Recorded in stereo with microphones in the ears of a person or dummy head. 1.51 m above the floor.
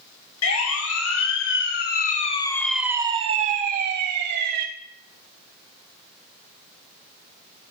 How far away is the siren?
About 3 m.